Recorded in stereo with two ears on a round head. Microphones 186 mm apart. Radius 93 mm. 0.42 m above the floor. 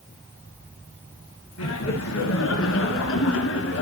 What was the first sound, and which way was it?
Laughter, 80° left.